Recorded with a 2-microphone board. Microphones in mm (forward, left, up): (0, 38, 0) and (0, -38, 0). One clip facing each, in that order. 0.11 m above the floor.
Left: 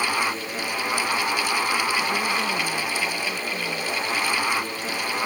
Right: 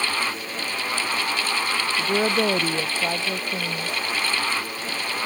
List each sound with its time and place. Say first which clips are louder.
2.0 s a woman speaking: right 3 dB; 65° right (ahead or behind)